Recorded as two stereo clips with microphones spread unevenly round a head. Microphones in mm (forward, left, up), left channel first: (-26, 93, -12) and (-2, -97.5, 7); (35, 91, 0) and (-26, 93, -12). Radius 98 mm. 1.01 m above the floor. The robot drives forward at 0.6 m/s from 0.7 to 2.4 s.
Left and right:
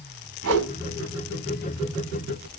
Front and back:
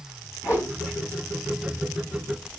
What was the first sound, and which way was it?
A whoosh, 65° right.